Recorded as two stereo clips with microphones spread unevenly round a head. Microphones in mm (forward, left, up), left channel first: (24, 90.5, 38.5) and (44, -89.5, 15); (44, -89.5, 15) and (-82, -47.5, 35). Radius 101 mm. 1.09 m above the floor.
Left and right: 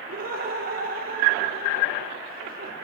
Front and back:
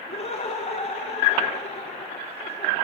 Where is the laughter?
50° right, 3.5 m.